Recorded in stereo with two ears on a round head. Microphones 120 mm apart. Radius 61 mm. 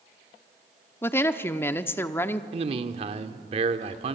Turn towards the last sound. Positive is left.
turn(degrees=-50)  # may be behind; listen again after turning